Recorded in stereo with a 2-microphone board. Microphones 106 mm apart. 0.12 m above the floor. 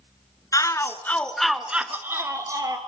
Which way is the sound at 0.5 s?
35° left (ahead or behind).